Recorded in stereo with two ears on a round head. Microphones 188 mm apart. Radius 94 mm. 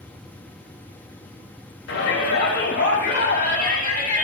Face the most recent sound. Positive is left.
turn(degrees=45)  # may be behind; listen again after turning